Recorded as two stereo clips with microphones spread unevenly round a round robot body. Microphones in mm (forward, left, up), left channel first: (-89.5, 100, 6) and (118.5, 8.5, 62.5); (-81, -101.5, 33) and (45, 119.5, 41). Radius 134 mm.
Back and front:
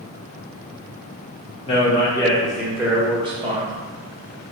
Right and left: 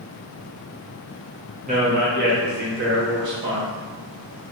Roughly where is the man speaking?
Behind left.